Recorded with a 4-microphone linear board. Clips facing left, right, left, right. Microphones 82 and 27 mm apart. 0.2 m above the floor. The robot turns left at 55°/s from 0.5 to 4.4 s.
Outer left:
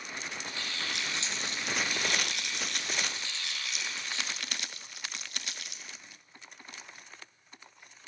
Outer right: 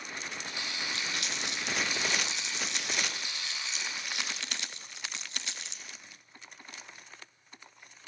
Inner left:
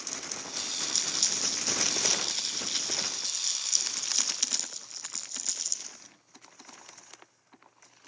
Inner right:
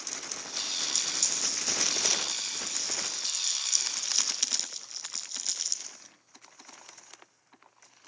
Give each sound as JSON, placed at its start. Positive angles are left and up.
{"t": 0.9, "sound": "crumpling", "side_deg": 15, "distance_m": 3.5}